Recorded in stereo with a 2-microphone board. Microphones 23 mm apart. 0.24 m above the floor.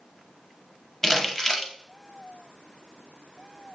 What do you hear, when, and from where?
1.0 s crumpling: 15° left (ahead or behind), 0.7 m